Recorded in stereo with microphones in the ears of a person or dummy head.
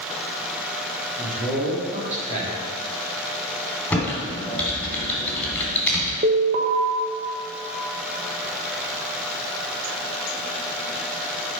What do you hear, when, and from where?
1.2 s a man speaking: 40° right (ahead or behind), 2 m
3.9 s typing on a keyboard: 5° left (ahead or behind), 3 m
6.2 s an alarm: 40° right (ahead or behind), 0.8 m